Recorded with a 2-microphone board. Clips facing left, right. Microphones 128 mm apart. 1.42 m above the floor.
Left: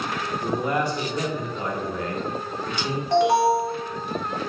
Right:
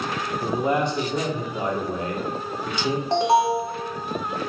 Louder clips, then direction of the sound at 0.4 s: Right 2 dB; 25° right (ahead or behind).